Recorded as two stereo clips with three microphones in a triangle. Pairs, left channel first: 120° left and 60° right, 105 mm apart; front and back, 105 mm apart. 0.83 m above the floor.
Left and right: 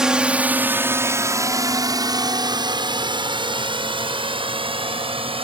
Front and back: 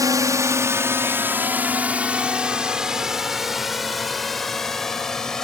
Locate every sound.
0.0 s a drone: 140° right; by 5.5 s 85° right